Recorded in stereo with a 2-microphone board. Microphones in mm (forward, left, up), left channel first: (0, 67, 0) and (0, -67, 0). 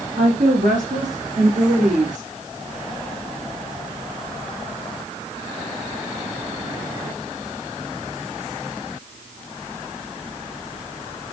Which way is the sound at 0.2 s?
65° right (ahead or behind).